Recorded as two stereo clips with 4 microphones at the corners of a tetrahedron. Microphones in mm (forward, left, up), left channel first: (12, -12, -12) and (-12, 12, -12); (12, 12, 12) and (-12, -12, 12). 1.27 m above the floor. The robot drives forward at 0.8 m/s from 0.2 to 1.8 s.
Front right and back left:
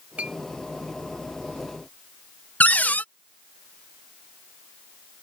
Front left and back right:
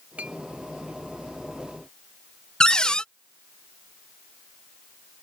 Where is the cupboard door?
20° right.